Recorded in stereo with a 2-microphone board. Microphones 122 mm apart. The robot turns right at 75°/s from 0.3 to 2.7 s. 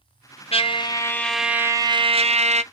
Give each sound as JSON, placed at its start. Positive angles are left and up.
{"t": 0.5, "sound": "a trumpet", "azimuth_deg": 115, "distance_m": 0.6}